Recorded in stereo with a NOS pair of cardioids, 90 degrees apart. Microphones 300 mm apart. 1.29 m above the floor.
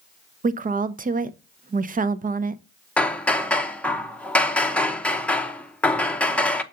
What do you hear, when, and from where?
0.4 s a woman speaking: 30° right, 0.7 m
3.0 s hammering: 5° left, 0.8 m